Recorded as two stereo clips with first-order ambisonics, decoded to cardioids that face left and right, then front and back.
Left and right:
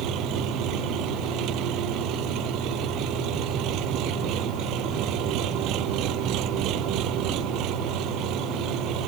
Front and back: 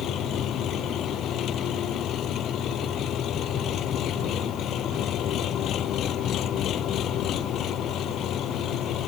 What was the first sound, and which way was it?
An engine running, 50° right.